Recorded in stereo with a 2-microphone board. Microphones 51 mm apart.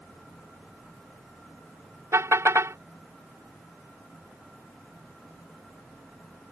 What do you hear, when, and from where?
2.1 s a car horn: 65° right (ahead or behind)